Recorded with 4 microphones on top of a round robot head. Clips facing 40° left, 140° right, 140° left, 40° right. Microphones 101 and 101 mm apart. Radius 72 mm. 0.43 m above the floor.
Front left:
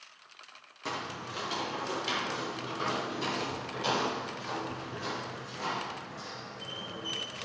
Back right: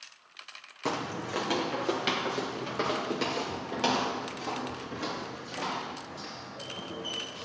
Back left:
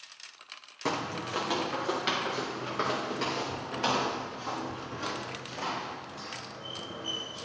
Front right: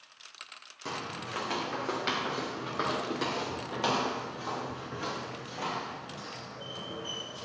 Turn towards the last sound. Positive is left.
turn(degrees=-115)